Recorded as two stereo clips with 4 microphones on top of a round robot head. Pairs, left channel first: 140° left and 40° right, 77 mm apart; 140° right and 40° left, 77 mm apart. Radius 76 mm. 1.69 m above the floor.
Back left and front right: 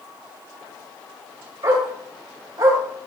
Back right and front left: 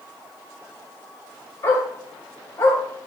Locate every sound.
1.6 s a dog barking: 90° right, 5.5 m